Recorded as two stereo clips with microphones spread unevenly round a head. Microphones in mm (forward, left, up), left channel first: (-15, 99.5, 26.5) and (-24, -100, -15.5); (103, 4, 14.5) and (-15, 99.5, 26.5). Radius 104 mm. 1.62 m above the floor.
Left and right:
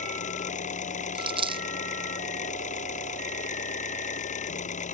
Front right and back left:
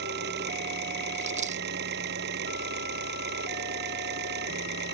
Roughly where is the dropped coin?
Behind.